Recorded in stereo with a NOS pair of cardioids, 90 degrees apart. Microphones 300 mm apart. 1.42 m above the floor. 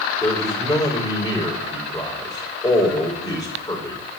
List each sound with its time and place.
0.2 s a man speaking: 10° left, 5 m